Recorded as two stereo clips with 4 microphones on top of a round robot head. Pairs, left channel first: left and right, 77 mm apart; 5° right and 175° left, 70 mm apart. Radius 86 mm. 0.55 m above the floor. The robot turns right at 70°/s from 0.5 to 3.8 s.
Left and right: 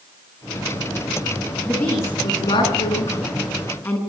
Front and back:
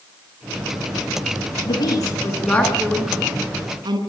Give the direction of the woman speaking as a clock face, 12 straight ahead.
12 o'clock.